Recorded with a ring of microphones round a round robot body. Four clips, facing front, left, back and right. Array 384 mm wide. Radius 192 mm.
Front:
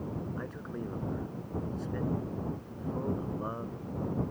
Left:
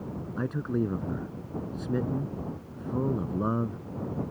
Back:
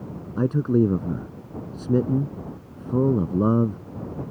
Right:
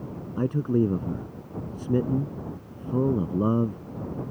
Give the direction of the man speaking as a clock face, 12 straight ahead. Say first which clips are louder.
Right 6 dB, back 18 dB; 5 o'clock.